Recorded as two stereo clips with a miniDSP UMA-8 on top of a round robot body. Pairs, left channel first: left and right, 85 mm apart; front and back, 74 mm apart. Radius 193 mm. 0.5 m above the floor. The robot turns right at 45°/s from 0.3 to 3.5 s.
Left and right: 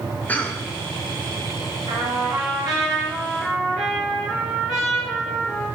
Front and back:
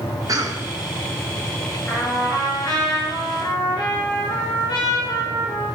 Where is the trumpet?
80° right, 5 m; by 5.7 s 5° right, 5 m.